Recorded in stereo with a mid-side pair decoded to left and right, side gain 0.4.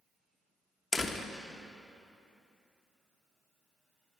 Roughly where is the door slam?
Ahead left.